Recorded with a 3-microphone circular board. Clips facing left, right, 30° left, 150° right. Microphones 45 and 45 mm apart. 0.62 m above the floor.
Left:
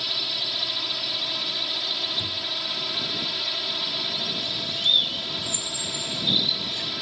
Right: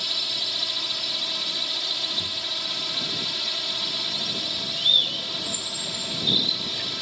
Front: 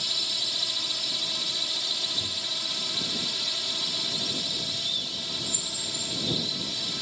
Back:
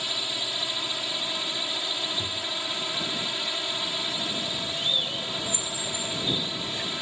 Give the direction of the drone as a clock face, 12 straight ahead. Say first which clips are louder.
Even, back 1 dB; 6 o'clock.